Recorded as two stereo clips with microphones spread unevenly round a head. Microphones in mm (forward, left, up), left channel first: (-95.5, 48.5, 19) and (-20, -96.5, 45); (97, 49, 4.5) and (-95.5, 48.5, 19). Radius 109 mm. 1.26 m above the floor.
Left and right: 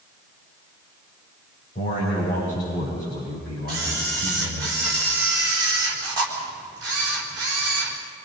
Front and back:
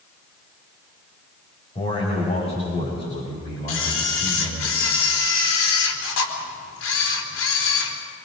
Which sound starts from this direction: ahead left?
A man speaking, at 1.8 s.